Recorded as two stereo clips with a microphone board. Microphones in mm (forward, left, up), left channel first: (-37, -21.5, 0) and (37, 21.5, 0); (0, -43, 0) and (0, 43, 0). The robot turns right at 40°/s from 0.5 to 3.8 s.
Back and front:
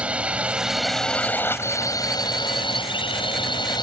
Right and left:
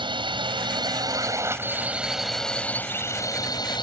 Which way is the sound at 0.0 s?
105° left.